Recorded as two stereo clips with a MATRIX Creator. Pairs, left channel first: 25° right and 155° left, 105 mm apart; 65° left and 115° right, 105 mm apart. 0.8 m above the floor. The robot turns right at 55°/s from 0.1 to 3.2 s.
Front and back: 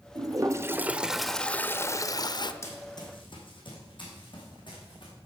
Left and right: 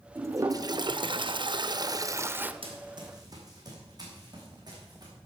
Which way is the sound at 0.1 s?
170° right.